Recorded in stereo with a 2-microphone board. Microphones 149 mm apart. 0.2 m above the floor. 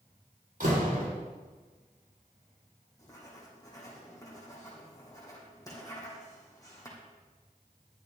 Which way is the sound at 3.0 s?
25° left (ahead or behind).